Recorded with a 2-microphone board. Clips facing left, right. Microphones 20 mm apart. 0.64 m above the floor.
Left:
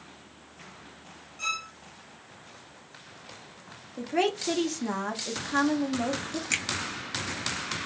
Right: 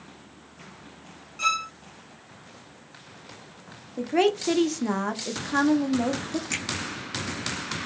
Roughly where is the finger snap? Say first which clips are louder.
Left 5 dB; centre.